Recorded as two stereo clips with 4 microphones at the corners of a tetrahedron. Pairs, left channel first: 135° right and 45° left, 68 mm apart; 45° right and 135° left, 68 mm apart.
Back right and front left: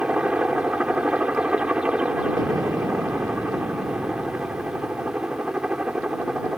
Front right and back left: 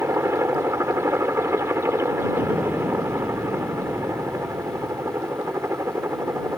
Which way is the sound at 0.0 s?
110° left.